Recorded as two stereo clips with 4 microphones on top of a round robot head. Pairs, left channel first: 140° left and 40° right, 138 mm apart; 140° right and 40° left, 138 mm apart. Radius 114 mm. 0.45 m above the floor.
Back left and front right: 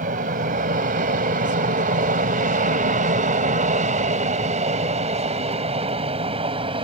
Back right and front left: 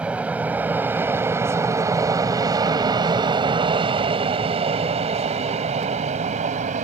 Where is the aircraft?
45° right; by 6.8 s 10° left.